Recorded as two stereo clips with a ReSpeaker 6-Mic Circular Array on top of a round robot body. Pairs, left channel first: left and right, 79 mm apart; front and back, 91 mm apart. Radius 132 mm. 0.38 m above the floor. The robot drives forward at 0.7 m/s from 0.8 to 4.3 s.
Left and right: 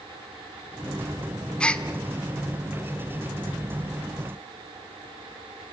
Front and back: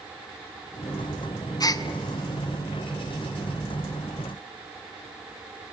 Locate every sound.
1.6 s a gasp: 15° left, 1.8 m; by 1.9 s 20° left, 1.7 m